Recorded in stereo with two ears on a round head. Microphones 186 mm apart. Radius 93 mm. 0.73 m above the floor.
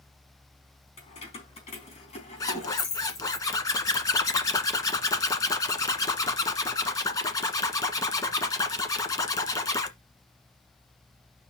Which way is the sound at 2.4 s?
15° left (ahead or behind).